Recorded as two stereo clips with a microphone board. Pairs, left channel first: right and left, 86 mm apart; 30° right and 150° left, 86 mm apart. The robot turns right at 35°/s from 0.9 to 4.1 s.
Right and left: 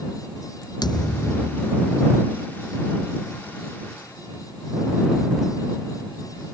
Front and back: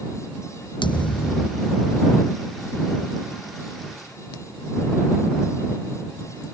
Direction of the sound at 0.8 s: 55° right.